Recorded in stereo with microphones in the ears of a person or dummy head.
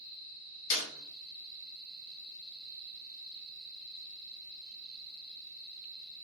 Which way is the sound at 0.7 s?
70° left (ahead or behind).